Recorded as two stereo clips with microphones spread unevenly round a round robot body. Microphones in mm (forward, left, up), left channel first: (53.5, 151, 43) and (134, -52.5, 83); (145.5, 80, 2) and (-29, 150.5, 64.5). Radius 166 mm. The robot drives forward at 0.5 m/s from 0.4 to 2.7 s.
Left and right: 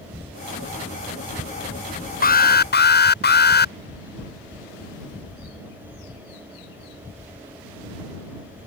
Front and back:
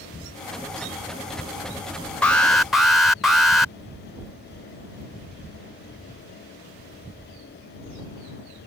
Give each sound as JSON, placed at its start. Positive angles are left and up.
{"t": 2.2, "sound": "an alarm", "azimuth_deg": 60}